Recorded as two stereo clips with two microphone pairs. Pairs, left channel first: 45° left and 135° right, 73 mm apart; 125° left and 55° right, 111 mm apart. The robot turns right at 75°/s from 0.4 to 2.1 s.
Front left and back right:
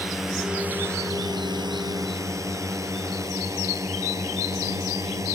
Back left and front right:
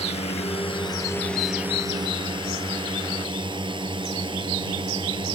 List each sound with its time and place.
0.0 s a drone: 135° left; by 5.4 s 95° right